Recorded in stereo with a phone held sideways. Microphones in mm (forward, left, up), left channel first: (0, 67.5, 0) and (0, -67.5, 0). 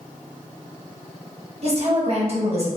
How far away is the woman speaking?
About 0.8 m.